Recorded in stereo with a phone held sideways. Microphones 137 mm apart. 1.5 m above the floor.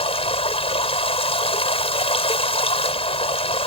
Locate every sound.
0.0 s running water: 45° left (ahead or behind)